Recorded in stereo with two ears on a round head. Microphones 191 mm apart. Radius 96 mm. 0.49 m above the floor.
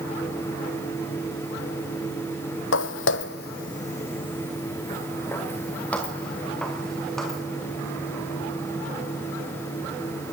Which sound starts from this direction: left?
Footsteps, at 2.7 s.